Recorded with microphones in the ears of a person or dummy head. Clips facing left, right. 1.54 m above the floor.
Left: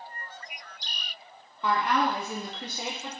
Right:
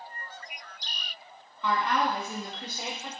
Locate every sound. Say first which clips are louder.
1.6 s a woman speaking: left 1 dB; 40° left (ahead or behind), 0.7 m; by 3.1 s 75° left (ahead or behind), 1.0 m